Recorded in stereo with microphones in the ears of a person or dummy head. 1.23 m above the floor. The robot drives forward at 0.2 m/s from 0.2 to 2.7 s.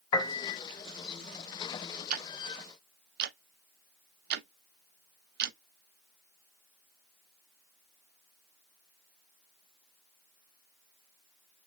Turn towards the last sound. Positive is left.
turn(degrees=-60)  # may be behind; listen again after turning